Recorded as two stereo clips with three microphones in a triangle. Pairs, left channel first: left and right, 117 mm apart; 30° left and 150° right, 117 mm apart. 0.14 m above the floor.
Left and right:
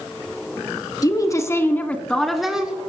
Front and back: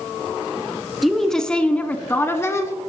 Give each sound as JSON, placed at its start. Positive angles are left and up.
{"t": 1.0, "sound": "a woman speaking", "azimuth_deg": 120, "distance_m": 1.3}